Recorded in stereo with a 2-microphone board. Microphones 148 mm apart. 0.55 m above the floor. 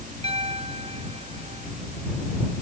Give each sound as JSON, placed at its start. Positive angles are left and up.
{"t": 0.2, "sound": "a piano", "side_deg": -40}